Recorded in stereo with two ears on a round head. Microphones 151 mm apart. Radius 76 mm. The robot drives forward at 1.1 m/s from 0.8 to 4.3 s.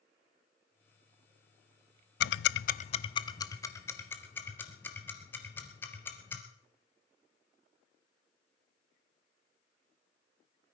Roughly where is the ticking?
Left.